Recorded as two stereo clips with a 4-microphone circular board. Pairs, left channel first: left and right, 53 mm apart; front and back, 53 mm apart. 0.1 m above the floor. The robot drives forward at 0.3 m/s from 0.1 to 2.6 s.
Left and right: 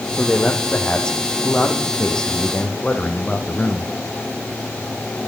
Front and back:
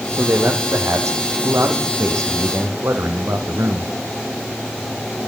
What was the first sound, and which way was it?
A man speaking, 165° left.